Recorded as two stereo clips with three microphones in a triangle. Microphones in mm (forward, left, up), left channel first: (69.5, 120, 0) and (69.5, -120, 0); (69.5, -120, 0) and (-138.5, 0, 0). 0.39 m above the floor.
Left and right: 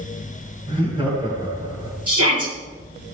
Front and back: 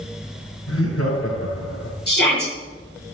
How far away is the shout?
About 7.5 m.